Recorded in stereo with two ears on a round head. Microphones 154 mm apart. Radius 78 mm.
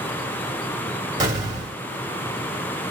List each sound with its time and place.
1.2 s an explosion: 25° right (ahead or behind), 1.6 m